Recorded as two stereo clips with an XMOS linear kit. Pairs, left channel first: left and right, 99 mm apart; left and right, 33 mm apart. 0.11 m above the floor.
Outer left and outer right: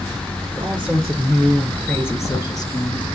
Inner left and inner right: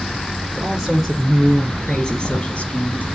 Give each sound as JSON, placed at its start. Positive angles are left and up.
{"t": 0.6, "sound": "a woman speaking", "side_deg": -10, "distance_m": 3.0}